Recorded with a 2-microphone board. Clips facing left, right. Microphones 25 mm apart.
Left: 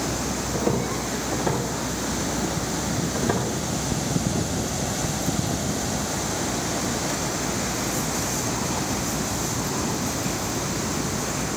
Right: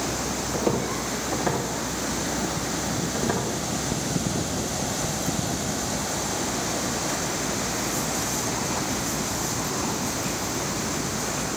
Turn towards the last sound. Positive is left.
turn(degrees=5)  # may be behind; listen again after turning